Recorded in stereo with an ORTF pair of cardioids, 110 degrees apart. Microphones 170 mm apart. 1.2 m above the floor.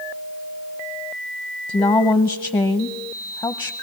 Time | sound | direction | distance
1.7 | a woman speaking | 25° left | 0.8 m